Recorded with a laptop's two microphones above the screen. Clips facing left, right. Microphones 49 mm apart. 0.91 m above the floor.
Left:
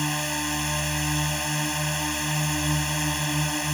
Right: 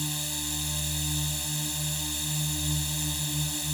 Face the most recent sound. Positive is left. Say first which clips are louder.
# left 8 dB
turn(degrees=55)  # may be behind; listen again after turning